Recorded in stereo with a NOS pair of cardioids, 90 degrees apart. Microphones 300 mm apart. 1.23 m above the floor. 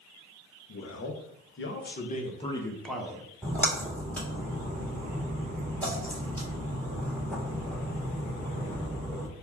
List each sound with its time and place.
0.7 s a man speaking: 55° left, 1.4 m; by 3.3 s 10° right, 0.9 m
3.4 s a splash: 5° left, 1.6 m